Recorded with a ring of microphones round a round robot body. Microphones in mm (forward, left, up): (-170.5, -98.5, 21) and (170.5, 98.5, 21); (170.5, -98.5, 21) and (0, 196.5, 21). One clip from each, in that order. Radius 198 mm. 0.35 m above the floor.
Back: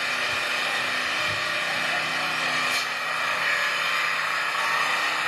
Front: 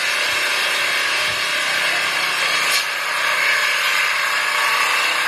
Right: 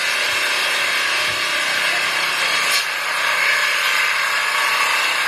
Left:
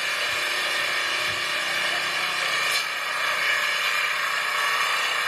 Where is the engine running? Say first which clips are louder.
Front 7 dB, right 6 dB; straight ahead, 1.4 m.